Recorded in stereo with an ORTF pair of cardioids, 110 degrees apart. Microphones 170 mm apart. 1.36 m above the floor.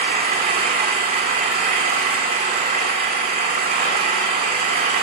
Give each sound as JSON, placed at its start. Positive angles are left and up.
{"t": 0.0, "sound": "an engine running", "azimuth_deg": -65, "distance_m": 2.5}